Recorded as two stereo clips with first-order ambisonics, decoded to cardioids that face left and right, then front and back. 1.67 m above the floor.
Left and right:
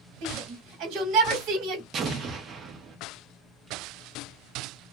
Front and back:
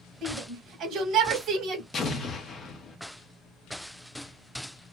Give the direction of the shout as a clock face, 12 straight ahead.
4 o'clock.